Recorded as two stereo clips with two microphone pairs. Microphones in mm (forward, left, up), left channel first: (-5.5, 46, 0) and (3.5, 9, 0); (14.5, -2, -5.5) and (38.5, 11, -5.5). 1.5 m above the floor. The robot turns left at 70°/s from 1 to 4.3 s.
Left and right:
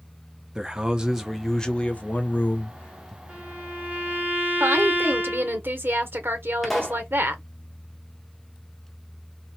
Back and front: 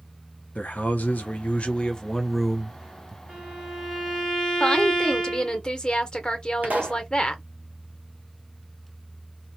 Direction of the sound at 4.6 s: 90° right.